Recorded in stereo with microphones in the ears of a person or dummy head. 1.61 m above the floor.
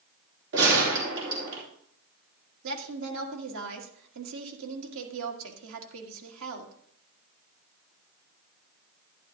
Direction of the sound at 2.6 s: 75° right (ahead or behind).